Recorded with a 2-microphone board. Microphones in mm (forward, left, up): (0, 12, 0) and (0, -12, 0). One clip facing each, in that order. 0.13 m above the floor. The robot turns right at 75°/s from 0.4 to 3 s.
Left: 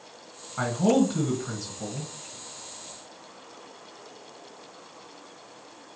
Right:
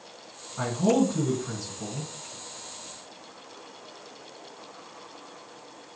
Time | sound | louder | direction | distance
0.6 | a man speaking | left 1 dB | 30° left (ahead or behind) | 1.6 m